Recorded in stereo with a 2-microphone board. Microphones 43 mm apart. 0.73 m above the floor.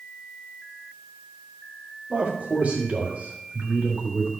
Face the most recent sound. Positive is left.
turn(degrees=-45)  # may be behind; listen again after turning